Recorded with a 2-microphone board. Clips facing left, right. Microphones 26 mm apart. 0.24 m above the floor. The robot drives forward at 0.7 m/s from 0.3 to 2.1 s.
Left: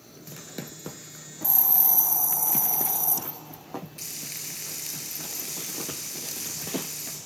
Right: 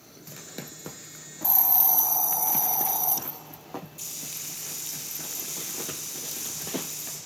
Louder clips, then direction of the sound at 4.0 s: Left 1 dB; 60° left (ahead or behind).